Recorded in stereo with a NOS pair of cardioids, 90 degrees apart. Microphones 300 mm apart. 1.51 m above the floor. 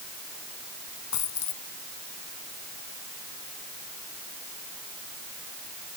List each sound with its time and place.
1.1 s a dropped coin: 65° left